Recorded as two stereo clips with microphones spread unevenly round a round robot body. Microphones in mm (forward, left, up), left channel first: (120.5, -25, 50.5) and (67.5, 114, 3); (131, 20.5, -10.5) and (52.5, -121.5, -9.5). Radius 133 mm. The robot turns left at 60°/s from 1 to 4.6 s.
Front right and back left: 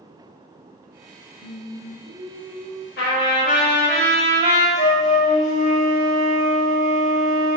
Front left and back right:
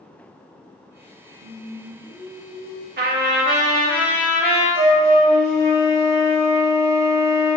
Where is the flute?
55° right, 1.1 m.